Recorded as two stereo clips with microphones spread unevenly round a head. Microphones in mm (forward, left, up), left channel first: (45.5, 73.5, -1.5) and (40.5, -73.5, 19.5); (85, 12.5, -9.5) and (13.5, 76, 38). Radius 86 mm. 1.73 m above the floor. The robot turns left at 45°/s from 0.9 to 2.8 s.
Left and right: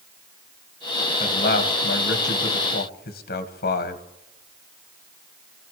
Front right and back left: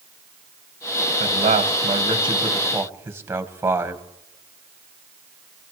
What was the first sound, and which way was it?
A man speaking, 140° left.